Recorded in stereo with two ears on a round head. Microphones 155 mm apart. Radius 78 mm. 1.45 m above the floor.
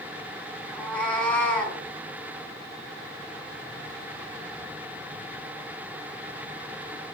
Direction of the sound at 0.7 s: 5° left (ahead or behind).